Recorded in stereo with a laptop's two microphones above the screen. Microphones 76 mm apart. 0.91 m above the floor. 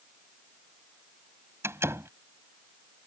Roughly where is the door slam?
Right.